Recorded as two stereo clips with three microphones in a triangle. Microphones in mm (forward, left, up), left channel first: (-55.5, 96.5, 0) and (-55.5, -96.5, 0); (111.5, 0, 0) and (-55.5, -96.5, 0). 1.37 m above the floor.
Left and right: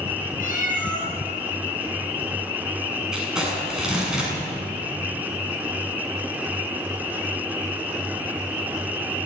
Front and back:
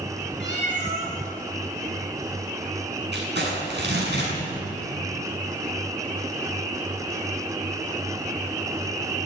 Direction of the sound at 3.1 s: 175° right.